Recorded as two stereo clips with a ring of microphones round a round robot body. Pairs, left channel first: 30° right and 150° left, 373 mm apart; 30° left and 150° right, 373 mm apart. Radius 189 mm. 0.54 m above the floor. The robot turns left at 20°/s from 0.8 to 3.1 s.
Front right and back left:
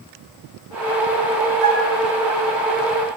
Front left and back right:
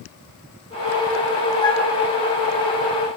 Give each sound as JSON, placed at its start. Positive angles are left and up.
{"t": 1.6, "sound": "a flute", "azimuth_deg": 110, "distance_m": 3.5}